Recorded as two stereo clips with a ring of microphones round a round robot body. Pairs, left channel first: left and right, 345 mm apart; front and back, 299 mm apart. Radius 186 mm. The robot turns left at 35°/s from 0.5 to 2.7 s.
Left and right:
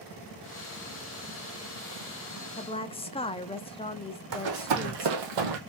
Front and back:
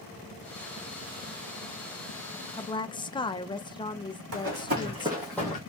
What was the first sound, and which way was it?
A woman speaking, 50° left.